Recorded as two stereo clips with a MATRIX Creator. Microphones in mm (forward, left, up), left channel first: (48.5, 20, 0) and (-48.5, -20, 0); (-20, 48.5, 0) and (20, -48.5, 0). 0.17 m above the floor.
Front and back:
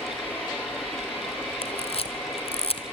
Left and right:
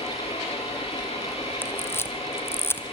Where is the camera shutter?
45° left, 1.2 m.